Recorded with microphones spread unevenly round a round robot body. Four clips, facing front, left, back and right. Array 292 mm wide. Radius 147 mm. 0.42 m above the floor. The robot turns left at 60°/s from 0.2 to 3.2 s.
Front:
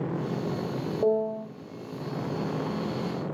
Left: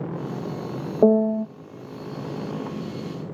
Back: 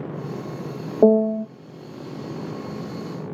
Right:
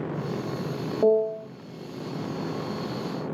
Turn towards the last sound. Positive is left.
turn(degrees=25)